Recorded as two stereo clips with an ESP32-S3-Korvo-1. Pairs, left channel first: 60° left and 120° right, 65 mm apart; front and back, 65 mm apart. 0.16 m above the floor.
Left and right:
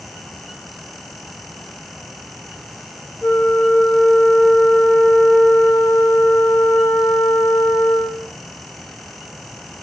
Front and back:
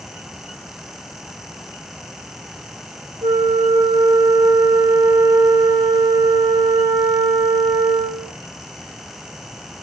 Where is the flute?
135° left, 4.5 m.